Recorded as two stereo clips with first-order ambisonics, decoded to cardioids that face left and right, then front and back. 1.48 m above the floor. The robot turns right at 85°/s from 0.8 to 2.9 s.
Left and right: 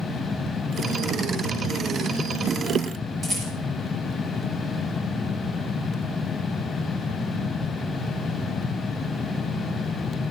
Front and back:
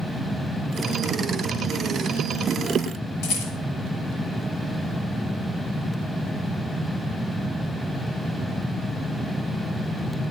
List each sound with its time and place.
3.2 s a rattle: 20° right, 5.5 m